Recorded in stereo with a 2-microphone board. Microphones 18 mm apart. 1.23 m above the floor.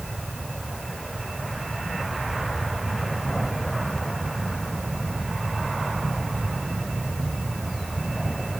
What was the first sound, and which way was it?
Only background noise.